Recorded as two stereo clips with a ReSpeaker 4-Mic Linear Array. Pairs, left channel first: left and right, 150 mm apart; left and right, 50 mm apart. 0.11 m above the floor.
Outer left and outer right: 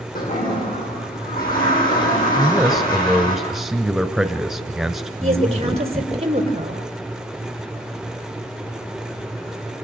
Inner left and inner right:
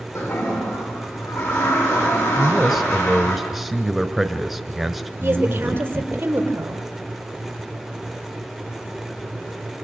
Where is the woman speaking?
45° right (ahead or behind), 3 m.